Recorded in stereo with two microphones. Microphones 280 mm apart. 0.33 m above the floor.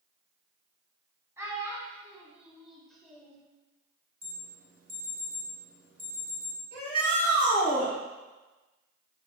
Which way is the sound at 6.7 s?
55° left (ahead or behind).